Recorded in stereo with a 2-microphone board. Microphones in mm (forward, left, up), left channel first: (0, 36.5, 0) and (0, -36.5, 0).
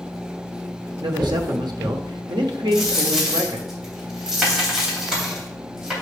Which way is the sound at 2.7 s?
5° right (ahead or behind).